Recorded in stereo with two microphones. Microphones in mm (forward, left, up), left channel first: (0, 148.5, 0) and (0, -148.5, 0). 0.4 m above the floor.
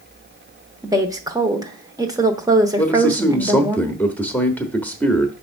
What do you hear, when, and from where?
0.8 s a woman speaking: 10° right (ahead or behind), 1.0 m
2.8 s a man speaking: 5° left (ahead or behind), 0.9 m